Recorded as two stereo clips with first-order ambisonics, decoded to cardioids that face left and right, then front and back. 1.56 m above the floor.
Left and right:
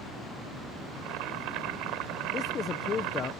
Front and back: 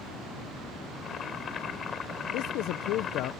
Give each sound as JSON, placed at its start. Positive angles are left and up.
{"t": 0.9, "sound": "boiling", "azimuth_deg": -65}
{"t": 2.3, "sound": "a man speaking", "azimuth_deg": 30}